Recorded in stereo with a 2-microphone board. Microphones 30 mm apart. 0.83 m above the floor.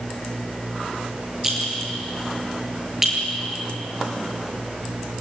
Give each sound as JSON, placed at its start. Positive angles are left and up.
{"t": 1.4, "sound": "a clink", "side_deg": -10, "distance_m": 8.0}